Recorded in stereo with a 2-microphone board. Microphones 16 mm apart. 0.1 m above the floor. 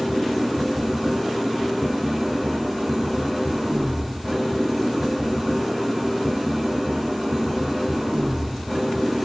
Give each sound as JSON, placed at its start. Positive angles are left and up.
{"t": 0.0, "sound": "an engine running", "side_deg": 0, "distance_m": 3.0}